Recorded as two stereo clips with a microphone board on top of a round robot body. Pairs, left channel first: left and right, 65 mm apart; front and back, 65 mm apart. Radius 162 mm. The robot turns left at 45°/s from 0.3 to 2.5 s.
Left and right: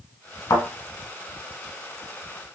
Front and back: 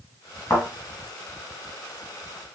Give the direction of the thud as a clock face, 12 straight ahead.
10 o'clock.